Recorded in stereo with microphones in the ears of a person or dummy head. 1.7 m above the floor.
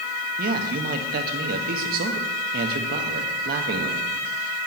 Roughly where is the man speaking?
Right.